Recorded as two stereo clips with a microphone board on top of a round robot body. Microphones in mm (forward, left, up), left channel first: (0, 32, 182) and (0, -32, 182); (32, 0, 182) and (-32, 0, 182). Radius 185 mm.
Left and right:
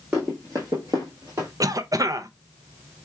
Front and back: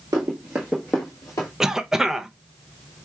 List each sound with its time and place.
0.1 s running footsteps: 150° right, 0.9 m; by 1.5 s 40° right, 1.1 m
1.6 s a cough: 100° right, 0.7 m